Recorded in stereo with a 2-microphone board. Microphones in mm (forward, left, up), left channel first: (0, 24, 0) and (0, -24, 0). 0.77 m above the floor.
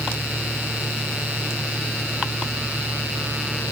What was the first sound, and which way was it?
Only background noise.